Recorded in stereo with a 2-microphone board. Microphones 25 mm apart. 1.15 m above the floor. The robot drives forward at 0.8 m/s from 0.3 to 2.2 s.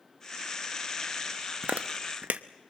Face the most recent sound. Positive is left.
turn(degrees=-75)  # may be behind; listen again after turning